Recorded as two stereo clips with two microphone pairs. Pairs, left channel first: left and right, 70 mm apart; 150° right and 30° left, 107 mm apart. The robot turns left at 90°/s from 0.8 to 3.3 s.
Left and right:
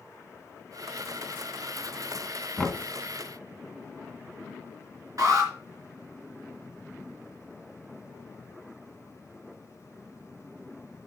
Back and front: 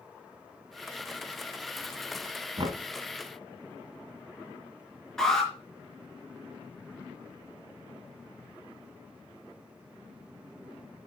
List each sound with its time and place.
2.6 s knocking: 20° left, 1.5 m; by 2.8 s 5° right, 1.5 m
5.2 s an alarm: 65° right, 4.5 m